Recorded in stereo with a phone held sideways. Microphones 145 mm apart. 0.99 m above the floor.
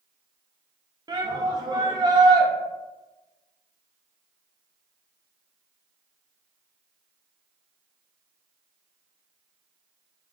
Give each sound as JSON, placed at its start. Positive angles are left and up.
{"t": 1.1, "sound": "a shout", "side_deg": -25, "distance_m": 0.6}